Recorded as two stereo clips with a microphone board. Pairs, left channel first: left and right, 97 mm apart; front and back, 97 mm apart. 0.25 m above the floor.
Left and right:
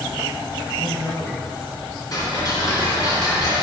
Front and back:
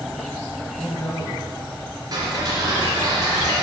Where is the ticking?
135° left, 2 m.